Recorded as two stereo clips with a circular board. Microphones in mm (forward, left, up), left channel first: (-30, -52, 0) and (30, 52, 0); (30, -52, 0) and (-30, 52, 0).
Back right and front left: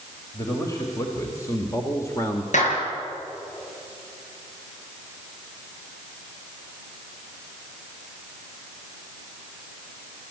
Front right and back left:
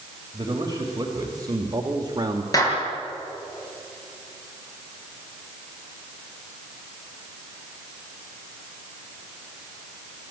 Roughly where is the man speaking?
Behind.